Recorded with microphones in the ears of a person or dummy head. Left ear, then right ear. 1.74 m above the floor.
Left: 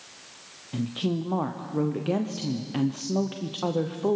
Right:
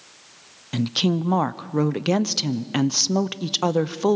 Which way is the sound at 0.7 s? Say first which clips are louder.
Right 7 dB; 70° right (ahead or behind).